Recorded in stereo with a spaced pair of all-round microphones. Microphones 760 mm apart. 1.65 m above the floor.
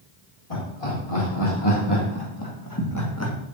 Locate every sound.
0.5 s laughter: 35° left (ahead or behind), 4.5 m; by 3.4 s 15° left (ahead or behind), 1.5 m